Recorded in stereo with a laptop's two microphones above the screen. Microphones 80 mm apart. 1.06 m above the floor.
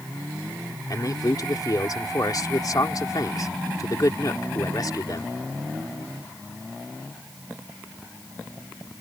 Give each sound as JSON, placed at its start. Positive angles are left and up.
{"t": 0.9, "sound": "a man speaking", "side_deg": 50}